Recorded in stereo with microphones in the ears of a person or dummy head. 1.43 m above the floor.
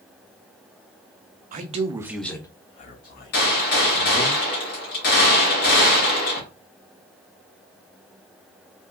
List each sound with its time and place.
1.5 s a man speaking: 45° right (ahead or behind), 0.6 m; by 4.3 s 65° left (ahead or behind), 1.5 m
3.3 s a gunshot: 45° left (ahead or behind), 1.1 m